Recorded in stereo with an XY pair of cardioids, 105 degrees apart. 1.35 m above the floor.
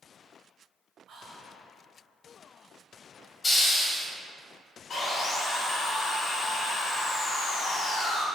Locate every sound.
1.1 s whispering: 60° right, 0.7 m
3.4 s a hiss: 30° left, 0.7 m
4.9 s sawing: 50° left, 0.6 m